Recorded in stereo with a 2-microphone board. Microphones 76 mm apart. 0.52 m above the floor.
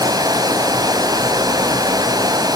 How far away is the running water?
About 2.5 m.